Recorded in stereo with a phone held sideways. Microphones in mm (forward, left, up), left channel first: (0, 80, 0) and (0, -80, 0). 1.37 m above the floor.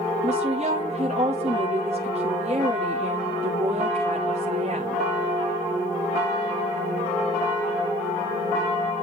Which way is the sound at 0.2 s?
45° right (ahead or behind).